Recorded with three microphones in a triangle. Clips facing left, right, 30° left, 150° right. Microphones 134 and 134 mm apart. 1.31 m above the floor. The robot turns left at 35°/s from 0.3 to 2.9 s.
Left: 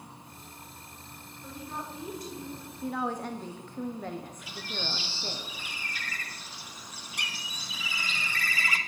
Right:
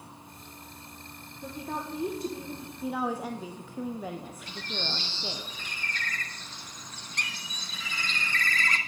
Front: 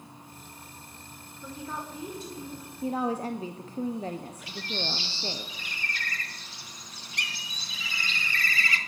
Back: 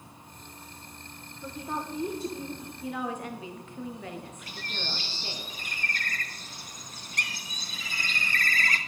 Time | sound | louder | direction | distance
1.4 | a woman speaking | right 4 dB, back 3 dB | 70° right | 1.5 m
2.8 | a woman speaking | right 1 dB, front 6 dB | 5° right | 0.6 m
4.5 | a bird | right 2 dB, front 7 dB | 170° left | 1.0 m